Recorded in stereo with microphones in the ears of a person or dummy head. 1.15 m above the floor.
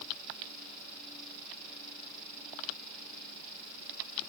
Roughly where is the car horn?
No car horn in this recording.